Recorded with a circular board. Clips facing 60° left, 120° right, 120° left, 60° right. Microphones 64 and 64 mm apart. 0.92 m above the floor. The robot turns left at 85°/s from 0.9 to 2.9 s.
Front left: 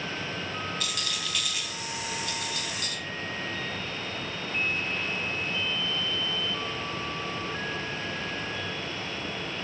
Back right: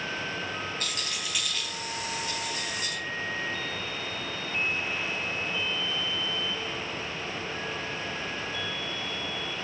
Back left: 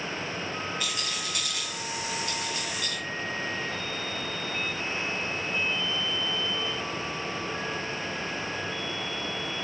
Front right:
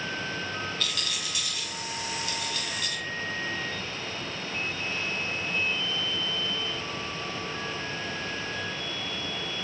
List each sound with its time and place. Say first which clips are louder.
0.8 s a rattle: front left 1 dB, back left 1 dB; 165° right, 3 m; by 3.0 s 25° left, 3 m